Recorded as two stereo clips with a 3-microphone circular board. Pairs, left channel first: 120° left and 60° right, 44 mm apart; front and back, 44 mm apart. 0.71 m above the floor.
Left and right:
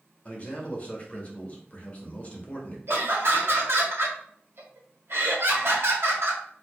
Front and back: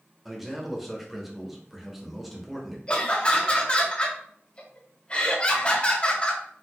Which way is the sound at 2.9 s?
60° right.